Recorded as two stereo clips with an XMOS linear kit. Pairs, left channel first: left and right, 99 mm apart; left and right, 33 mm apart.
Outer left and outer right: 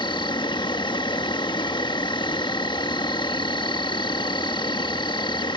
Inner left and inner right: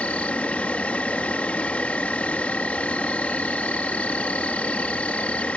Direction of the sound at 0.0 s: 50° left (ahead or behind).